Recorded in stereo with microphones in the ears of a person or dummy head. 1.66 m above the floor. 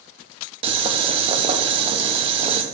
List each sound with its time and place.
0.6 s boiling: 30° right (ahead or behind), 0.9 m